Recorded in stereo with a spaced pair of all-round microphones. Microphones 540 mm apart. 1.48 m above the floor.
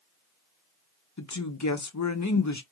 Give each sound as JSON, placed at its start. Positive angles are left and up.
{"t": 1.2, "sound": "a woman speaking", "side_deg": 35, "distance_m": 0.6}